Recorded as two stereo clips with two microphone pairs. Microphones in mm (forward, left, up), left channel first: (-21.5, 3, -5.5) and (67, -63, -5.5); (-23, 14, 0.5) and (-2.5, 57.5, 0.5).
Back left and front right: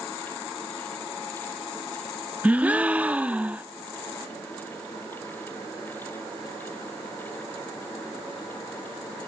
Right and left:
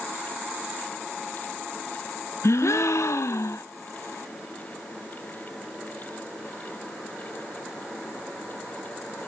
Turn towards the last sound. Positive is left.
turn(degrees=-110)